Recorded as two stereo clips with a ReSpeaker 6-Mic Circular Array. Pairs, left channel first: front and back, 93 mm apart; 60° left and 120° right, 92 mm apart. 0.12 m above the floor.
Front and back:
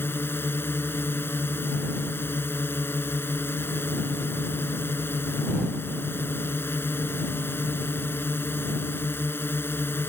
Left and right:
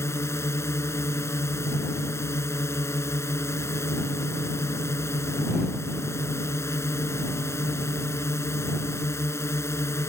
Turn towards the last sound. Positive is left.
turn(degrees=40)